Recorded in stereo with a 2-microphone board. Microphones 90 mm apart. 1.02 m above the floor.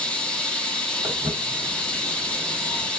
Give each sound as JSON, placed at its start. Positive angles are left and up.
{"t": 0.0, "sound": "running water", "side_deg": 15, "distance_m": 0.8}
{"t": 1.0, "sound": "footsteps", "side_deg": -10, "distance_m": 1.6}